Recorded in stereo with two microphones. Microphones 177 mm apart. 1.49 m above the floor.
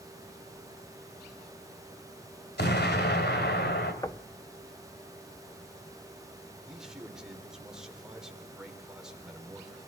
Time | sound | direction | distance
2.6 | an explosion | 65° left (ahead or behind) | 2.5 m
4.0 | knocking | 20° left (ahead or behind) | 0.9 m
6.6 | a man speaking | 5° right (ahead or behind) | 4 m